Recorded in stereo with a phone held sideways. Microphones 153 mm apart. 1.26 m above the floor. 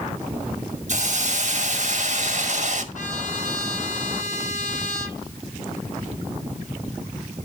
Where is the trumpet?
60° left (ahead or behind), 9 m.